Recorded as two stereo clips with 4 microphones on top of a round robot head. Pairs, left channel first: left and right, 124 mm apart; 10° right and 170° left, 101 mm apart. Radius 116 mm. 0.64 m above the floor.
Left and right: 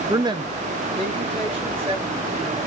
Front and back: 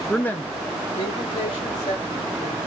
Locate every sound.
0.1 s a woman speaking: 95° right, 0.5 m; by 2.6 s 45° right, 2.5 m